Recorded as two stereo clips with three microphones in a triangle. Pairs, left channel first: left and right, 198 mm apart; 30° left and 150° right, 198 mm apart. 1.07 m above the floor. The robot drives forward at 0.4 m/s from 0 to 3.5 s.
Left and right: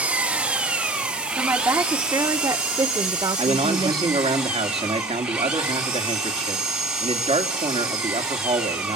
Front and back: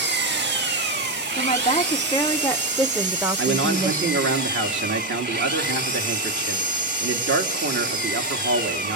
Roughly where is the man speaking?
Behind right.